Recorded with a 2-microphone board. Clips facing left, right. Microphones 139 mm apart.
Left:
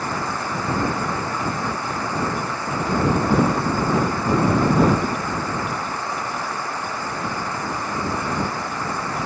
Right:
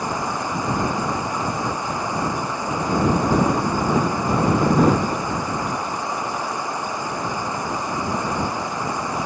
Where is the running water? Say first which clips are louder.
Right 1 dB; 15° right (ahead or behind).